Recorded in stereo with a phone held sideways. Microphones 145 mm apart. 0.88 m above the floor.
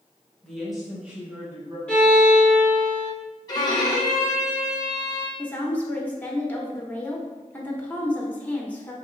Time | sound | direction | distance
0.4 | a woman speaking | 5° left (ahead or behind) | 1.3 m
1.9 | a violin | 10° left (ahead or behind) | 1.1 m
3.5 | a violin | 30° left (ahead or behind) | 0.8 m
5.4 | a woman speaking | 10° left (ahead or behind) | 0.7 m